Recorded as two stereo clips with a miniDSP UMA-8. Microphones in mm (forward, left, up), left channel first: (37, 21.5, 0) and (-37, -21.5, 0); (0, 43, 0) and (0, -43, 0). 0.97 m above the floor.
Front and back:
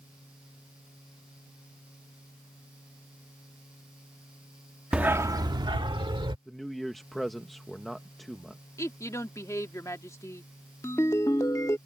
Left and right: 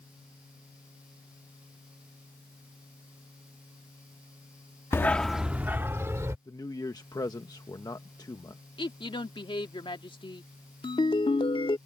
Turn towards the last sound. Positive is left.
turn(degrees=85)